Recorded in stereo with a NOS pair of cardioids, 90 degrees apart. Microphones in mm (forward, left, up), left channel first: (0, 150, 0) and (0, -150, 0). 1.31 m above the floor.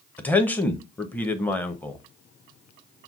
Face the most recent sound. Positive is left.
turn(degrees=5)